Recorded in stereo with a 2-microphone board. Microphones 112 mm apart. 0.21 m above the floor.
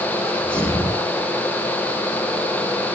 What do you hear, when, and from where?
0.2 s a sneeze: 10° left (ahead or behind), 9.5 m